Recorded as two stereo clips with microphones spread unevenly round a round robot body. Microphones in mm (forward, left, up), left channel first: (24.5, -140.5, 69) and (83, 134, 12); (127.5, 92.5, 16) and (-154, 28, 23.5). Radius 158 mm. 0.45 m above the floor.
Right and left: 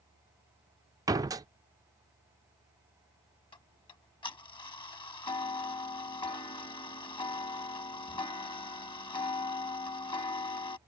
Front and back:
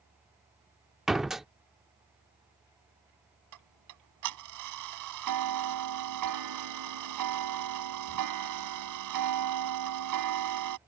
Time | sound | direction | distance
1.1 | a door slam | 105° left | ?
3.5 | ticking | straight behind | ?